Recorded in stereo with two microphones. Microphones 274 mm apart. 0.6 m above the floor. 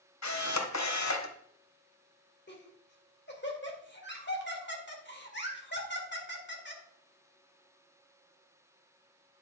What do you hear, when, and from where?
0.2 s a camera shutter: 80° left, 1.0 m
2.5 s laughter: 40° left (ahead or behind), 1.8 m